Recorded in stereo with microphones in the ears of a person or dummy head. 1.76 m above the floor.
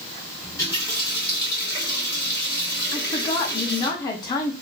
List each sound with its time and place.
0.4 s a running tap: 25° left (ahead or behind), 2 m
2.9 s a woman speaking: 20° left (ahead or behind), 0.6 m